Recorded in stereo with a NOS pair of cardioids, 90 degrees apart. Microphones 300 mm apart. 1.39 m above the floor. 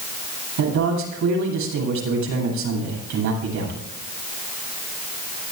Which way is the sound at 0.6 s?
70° right.